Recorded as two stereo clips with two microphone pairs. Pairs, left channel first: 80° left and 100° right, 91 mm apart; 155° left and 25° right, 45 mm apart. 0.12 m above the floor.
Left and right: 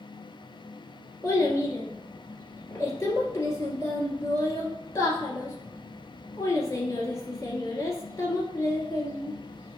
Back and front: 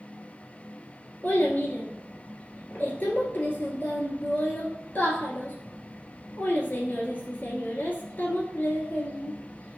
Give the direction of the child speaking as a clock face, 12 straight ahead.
8 o'clock.